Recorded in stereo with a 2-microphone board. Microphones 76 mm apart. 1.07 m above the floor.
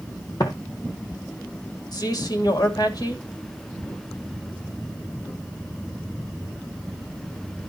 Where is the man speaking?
60° left (ahead or behind), 2.5 m.